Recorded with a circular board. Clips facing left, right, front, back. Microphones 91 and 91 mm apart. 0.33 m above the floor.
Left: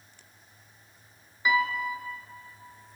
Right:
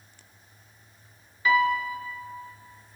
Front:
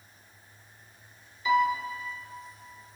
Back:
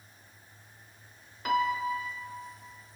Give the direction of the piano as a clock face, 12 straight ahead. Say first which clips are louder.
Right 4 dB, front 3 dB; 7 o'clock.